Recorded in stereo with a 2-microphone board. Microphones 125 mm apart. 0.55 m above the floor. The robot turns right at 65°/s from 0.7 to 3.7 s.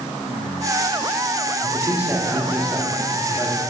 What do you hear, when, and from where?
1.6 s a man speaking: 45° right, 1.0 m; by 3.6 s 80° left, 1.0 m